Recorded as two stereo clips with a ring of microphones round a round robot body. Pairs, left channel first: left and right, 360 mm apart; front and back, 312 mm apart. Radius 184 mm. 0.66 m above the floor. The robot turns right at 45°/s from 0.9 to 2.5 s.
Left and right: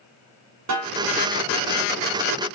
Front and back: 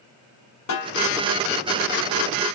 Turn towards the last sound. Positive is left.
turn(degrees=30)